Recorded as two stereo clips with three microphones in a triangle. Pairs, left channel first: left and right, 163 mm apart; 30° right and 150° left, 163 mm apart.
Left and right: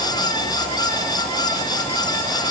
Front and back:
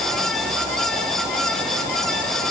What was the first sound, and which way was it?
Only background noise.